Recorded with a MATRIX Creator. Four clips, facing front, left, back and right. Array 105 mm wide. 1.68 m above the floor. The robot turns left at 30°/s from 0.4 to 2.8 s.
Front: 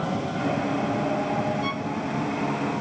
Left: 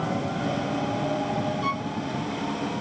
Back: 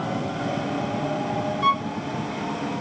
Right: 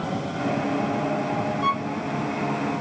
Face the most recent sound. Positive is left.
turn(degrees=165)